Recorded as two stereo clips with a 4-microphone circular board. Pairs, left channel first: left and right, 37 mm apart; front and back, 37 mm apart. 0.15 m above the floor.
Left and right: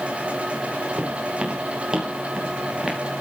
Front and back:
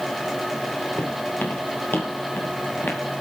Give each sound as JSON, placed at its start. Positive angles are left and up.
{"t": 1.0, "sound": "footsteps", "azimuth_deg": -25, "distance_m": 5.5}